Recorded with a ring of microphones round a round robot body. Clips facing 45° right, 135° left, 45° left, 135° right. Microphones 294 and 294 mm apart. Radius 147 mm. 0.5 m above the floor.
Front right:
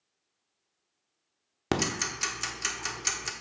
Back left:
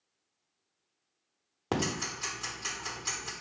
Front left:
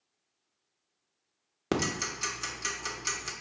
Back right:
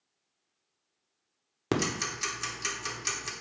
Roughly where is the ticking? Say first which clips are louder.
Front right 2 dB, back right 1 dB; ahead right.